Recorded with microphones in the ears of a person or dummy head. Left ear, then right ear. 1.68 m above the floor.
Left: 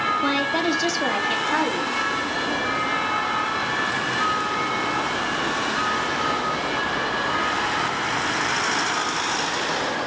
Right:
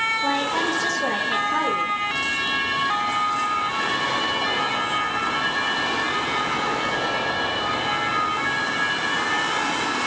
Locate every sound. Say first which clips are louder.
0.2 s a woman speaking: even; 70° left (ahead or behind), 4 m; by 2.0 s 85° left, 4 m